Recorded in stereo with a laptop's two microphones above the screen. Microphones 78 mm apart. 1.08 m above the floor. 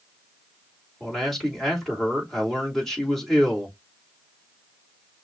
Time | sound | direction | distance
1.0 | a man speaking | 5° left (ahead or behind) | 3 m